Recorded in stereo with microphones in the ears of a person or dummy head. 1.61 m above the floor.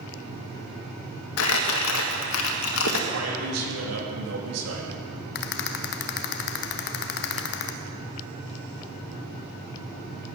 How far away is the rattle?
About 0.8 m.